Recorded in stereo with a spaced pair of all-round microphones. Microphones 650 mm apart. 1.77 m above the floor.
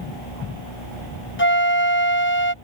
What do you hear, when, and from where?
1.4 s a flute: 20° left (ahead or behind)